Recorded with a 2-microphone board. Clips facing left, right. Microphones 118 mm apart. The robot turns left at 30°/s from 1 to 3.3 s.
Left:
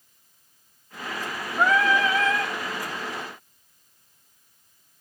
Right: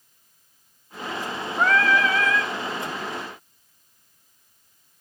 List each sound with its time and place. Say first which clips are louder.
1.6 s singing: even; 10° left (ahead or behind), 2.0 m; by 2.5 s 35° left (ahead or behind), 2.0 m